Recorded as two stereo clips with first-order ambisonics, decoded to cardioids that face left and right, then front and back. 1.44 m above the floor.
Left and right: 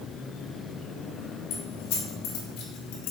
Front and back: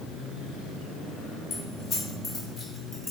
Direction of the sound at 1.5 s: 65° left.